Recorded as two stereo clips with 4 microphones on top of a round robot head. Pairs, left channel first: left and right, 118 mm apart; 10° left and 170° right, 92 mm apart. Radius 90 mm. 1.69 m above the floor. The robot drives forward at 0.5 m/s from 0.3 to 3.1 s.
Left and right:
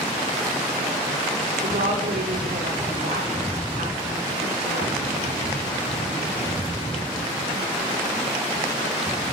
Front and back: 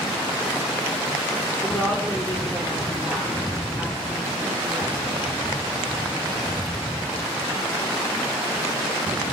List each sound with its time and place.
1.6 s a woman speaking: 80° right, 5.5 m; by 5.0 s 85° right, 5.5 m